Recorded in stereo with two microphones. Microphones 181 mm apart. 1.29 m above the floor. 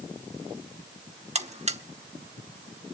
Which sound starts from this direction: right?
A buzzer, at 1.4 s.